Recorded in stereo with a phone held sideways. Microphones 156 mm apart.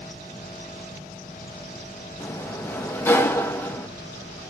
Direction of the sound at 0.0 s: 65° right (ahead or behind).